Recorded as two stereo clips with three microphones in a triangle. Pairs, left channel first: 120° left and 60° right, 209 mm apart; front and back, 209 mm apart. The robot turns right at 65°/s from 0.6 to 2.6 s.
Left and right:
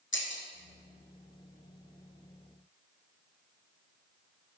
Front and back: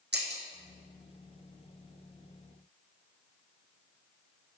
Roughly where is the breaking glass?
Behind left.